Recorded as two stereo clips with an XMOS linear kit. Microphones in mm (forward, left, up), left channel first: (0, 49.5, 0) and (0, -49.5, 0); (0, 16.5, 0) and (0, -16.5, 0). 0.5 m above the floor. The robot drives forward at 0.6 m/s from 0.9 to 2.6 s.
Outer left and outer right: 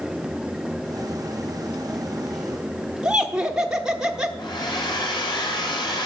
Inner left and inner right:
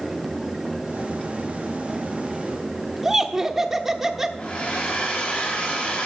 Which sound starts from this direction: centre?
Laughter, at 3.0 s.